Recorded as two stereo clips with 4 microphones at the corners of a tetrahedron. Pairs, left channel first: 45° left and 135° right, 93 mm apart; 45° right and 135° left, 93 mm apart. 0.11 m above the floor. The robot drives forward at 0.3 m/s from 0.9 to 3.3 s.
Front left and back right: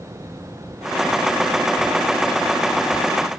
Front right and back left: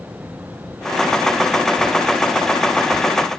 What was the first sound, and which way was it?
Only background noise.